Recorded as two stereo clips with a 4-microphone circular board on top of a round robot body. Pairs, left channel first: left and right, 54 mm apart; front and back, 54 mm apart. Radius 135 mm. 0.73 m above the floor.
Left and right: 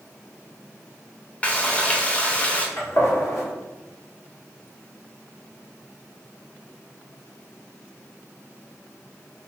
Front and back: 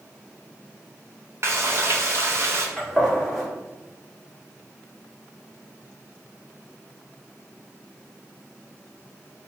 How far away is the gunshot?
About 1.7 m.